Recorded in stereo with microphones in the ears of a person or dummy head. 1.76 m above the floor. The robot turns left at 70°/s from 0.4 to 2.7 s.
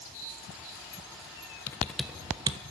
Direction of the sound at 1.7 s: 15° left (ahead or behind).